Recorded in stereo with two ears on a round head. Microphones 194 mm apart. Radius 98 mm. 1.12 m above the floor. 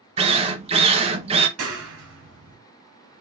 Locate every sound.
0.2 s a drill: 25° right (ahead or behind), 0.6 m
1.6 s a clap: 75° right (ahead or behind), 1.8 m